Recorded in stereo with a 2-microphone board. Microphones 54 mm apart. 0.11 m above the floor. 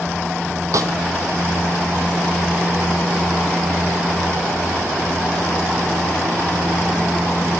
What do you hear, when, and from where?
0.7 s a snare drum: 75° right (ahead or behind), 0.8 m